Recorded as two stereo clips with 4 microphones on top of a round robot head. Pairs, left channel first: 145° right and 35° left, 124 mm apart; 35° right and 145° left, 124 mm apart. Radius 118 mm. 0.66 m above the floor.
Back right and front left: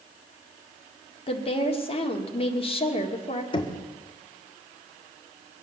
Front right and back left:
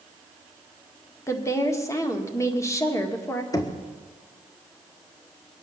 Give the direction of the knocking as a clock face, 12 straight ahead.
3 o'clock.